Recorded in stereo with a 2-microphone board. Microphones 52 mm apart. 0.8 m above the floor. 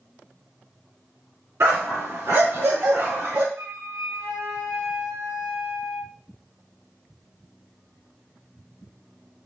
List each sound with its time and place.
1.6 s a dog barking: 60° right (ahead or behind), 3.5 m; by 3.5 s 50° right (ahead or behind), 2.5 m
3.5 s a flute: 55° right (ahead or behind), 3.5 m